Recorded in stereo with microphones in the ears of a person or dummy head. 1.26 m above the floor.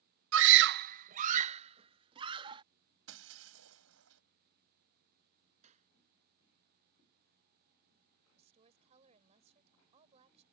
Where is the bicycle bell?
No bicycle bell in this recording.